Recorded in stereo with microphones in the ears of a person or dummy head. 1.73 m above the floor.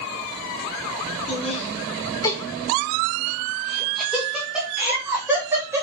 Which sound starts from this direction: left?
Laughter, at 1.3 s.